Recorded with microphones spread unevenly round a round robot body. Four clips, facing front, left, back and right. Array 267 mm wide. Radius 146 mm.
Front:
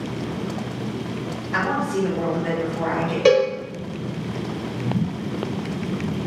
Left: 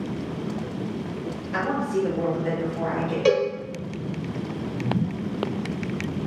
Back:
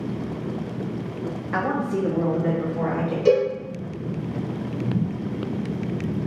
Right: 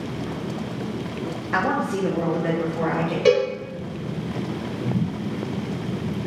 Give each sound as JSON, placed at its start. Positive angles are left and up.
{"t": 1.5, "sound": "a woman speaking", "azimuth_deg": -135, "distance_m": 0.7}
{"t": 3.2, "sound": "a cowbell", "azimuth_deg": 0, "distance_m": 1.1}